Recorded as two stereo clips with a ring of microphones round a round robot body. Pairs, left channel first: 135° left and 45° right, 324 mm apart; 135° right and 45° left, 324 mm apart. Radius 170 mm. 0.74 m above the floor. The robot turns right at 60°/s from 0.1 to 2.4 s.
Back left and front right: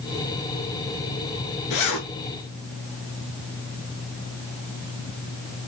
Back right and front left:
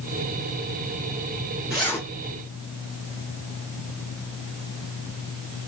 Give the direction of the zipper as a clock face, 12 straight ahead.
8 o'clock.